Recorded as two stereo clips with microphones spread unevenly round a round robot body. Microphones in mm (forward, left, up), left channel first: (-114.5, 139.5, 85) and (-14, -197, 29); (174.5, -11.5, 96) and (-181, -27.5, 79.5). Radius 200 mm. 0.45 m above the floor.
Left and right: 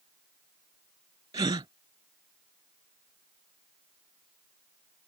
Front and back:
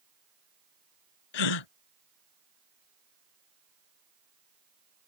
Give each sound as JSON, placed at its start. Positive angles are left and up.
{"t": 1.3, "sound": "a gasp", "azimuth_deg": 5}